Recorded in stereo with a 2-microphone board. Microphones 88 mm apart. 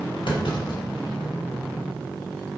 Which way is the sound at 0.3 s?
70° left (ahead or behind).